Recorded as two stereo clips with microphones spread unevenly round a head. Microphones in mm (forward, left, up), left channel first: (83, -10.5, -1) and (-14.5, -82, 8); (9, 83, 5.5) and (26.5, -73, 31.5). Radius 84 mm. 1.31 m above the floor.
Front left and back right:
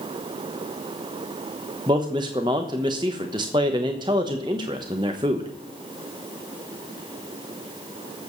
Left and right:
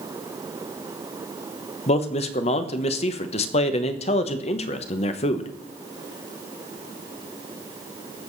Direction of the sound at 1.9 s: 150° left.